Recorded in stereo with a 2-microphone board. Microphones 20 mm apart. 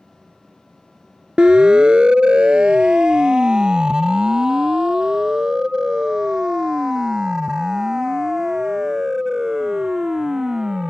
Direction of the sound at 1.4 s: 50° right (ahead or behind).